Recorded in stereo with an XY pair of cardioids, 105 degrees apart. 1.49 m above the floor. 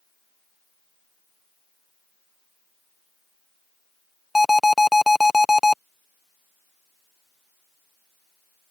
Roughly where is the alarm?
Ahead.